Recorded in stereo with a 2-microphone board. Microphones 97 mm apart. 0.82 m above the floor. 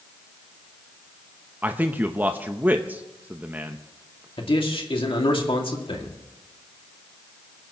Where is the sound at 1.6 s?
20° right (ahead or behind), 0.7 m.